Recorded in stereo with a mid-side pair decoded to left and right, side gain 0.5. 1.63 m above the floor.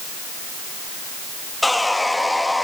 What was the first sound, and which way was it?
Sawing, 10° left.